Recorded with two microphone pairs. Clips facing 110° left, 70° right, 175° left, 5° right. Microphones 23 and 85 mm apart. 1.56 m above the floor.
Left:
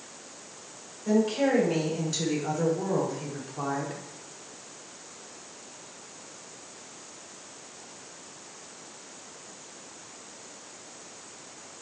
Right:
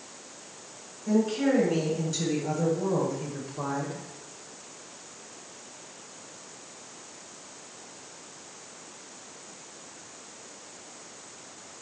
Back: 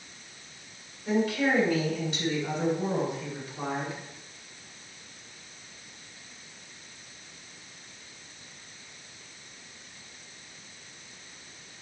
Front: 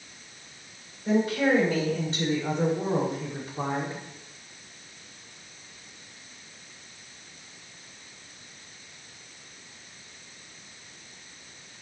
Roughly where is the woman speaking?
Ahead left.